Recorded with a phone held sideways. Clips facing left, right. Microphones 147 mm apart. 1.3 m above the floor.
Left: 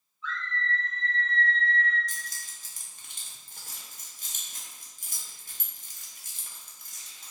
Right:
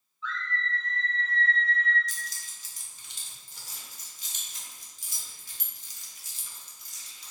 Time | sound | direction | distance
0.2 | a scream | 50° left (ahead or behind) | 1.9 m
2.1 | keys jangling | 50° left (ahead or behind) | 0.6 m